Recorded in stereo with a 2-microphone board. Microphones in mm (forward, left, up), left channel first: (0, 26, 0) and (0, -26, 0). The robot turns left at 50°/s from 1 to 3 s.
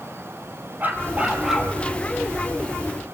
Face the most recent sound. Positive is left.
turn(degrees=115)